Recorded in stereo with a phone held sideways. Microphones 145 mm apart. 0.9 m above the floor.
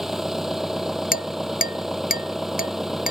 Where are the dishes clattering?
85° left.